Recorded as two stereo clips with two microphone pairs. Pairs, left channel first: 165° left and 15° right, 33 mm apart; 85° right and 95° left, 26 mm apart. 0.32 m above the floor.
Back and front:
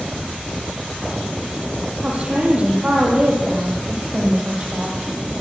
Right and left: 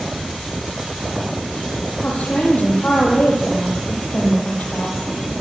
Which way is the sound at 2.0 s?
70° right.